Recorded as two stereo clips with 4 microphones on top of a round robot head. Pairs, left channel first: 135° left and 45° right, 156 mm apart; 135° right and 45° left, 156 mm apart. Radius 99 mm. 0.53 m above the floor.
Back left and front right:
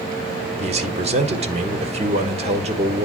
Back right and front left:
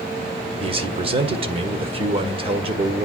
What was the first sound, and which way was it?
A man speaking, 5° right.